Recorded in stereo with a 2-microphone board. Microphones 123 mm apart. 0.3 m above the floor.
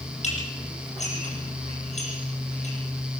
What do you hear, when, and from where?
0.2 s dishes clattering: 65° left (ahead or behind), 8 m